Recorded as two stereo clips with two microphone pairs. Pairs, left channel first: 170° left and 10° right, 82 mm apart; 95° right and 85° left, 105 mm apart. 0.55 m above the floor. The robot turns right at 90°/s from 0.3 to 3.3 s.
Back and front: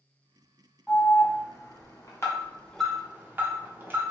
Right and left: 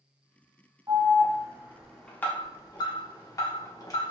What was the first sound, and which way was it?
An alarm, 75° left.